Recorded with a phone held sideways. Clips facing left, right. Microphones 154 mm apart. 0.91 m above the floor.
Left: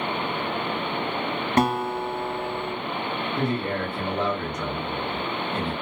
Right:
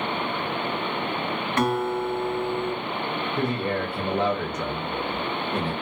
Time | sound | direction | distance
1.6 | a guitar | 40° left (ahead or behind) | 0.8 m
3.4 | a man speaking | 5° right (ahead or behind) | 0.8 m